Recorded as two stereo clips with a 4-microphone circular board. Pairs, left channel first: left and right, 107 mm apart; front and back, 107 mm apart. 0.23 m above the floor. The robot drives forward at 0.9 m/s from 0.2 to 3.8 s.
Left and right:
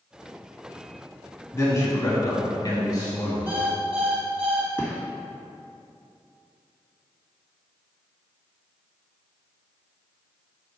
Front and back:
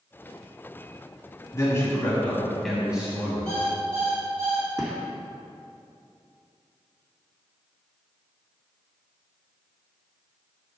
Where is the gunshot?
145° left, 1.7 m.